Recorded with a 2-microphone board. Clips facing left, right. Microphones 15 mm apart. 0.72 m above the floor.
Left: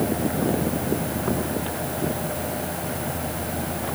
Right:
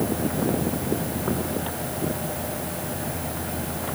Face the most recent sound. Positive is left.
No sound to turn to.